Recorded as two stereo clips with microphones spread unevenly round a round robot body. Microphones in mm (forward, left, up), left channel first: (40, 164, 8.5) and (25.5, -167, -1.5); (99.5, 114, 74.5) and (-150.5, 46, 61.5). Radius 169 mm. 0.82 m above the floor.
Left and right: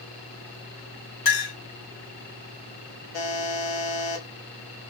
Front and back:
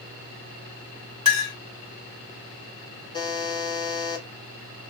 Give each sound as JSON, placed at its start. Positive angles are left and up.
{"t": 1.2, "sound": "a clink", "azimuth_deg": 90, "distance_m": 1.8}
{"t": 3.1, "sound": "a buzzer", "azimuth_deg": 90, "distance_m": 1.0}